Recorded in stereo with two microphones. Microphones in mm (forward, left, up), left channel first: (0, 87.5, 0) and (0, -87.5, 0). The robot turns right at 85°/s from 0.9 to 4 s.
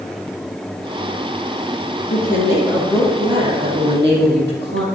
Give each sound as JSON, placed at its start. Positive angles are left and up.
{"t": 2.1, "sound": "a woman speaking", "azimuth_deg": 110, "distance_m": 4.5}